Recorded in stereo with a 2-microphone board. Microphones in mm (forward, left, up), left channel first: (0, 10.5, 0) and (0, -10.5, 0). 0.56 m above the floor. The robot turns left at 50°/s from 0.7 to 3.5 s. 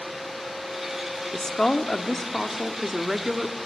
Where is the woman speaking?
70° left, 1.3 m; by 3.6 s 40° right, 1.3 m.